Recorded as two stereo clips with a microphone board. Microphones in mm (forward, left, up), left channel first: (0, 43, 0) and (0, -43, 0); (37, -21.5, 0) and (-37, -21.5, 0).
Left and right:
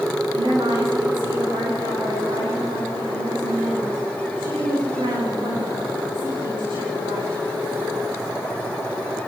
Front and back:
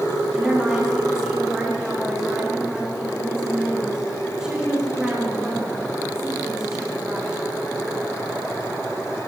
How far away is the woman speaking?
About 9.5 m.